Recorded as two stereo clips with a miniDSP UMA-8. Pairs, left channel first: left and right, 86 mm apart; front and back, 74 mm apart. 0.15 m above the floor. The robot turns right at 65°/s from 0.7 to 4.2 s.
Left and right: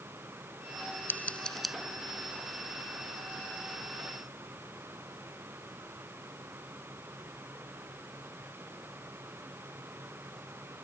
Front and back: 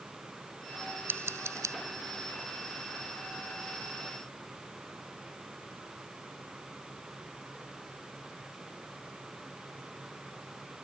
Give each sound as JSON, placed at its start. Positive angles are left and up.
{"t": 1.1, "sound": "scissors", "azimuth_deg": 145}